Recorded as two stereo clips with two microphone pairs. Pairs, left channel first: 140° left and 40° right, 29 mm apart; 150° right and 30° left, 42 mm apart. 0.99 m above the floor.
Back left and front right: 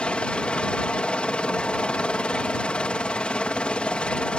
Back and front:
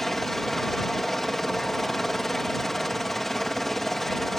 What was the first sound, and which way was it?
A helicopter, 125° left.